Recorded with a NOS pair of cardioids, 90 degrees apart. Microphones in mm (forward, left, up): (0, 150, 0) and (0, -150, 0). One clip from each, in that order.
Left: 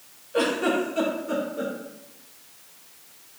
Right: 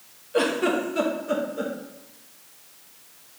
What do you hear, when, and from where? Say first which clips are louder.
0.3 s a giggle: right 1 dB; 15° right, 2 m